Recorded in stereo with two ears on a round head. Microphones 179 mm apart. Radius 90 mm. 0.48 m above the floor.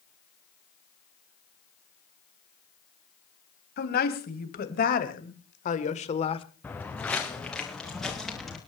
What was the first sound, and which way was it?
A woman speaking, 55° left (ahead or behind).